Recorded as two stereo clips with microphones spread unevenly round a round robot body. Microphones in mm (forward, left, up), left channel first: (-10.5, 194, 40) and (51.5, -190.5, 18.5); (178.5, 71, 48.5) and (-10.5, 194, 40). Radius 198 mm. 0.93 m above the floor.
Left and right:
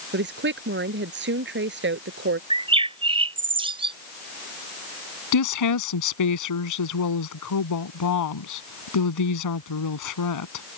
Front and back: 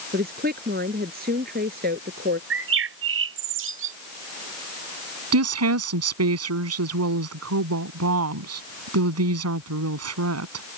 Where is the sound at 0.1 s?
145° right.